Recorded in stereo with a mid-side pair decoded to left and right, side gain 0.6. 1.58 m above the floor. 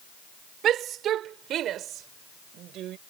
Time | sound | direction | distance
0.6 | a shout | 55° right | ?